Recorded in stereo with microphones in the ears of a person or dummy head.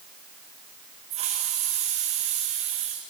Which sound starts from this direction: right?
A hiss, at 1.1 s.